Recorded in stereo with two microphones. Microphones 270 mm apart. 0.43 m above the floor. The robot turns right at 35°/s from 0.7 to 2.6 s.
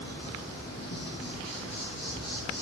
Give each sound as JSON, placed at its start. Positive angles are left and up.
{"t": 0.0, "sound": "an insect", "azimuth_deg": 60, "distance_m": 3.0}